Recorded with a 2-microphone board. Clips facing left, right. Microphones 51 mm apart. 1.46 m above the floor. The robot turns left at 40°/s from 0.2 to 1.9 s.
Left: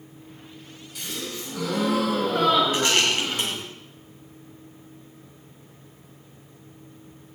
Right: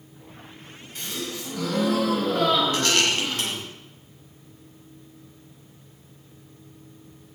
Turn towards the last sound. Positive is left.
turn(degrees=10)  # may be behind; listen again after turning